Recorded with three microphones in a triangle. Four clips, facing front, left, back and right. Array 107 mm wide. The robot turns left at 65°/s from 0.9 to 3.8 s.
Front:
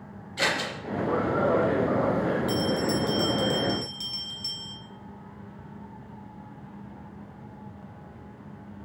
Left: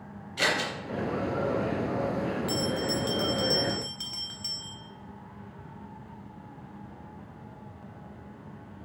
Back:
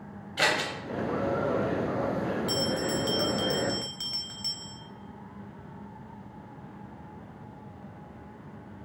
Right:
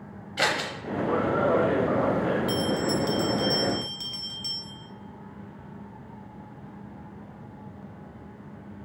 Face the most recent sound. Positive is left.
turn(degrees=150)